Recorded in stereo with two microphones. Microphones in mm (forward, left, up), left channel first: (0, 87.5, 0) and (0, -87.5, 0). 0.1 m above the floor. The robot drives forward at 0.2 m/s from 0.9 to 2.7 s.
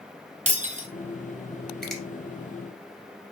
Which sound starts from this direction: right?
Breaking glass, at 0.5 s.